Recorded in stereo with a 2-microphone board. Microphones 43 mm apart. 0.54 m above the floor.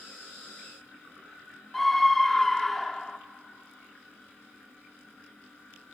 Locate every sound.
1.7 s a scream: 5° left (ahead or behind), 0.7 m